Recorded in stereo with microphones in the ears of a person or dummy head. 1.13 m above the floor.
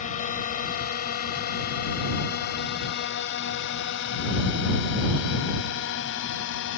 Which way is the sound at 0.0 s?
45° left (ahead or behind).